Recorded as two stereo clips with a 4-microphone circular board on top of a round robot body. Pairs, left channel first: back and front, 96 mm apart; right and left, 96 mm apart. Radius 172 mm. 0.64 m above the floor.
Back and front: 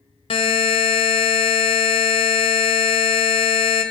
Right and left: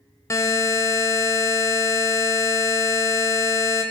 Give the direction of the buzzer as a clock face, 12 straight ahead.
5 o'clock.